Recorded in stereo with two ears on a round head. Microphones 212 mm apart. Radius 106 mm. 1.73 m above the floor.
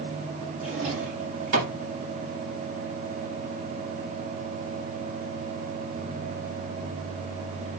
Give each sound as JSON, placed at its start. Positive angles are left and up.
{"t": 0.6, "sound": "a drawer", "side_deg": -55, "distance_m": 1.8}